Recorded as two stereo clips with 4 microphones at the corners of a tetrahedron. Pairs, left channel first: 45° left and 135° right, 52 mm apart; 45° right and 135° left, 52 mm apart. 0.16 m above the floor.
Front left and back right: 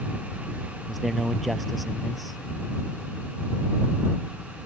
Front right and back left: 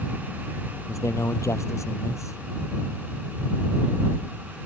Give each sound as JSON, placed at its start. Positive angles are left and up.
{"t": 0.9, "sound": "a man speaking", "azimuth_deg": -45}